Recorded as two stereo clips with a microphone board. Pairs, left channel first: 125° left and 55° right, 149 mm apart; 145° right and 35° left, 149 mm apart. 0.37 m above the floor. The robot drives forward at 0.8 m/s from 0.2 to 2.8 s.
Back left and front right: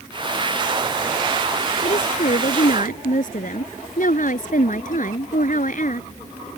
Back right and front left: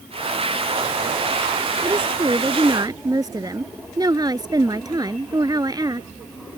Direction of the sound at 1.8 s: 90° left.